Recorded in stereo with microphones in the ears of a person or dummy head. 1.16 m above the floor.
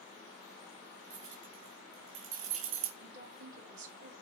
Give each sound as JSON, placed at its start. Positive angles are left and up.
{"t": 1.1, "sound": "keys jangling", "side_deg": -35, "distance_m": 2.5}
{"t": 3.0, "sound": "a woman speaking", "side_deg": -50, "distance_m": 2.5}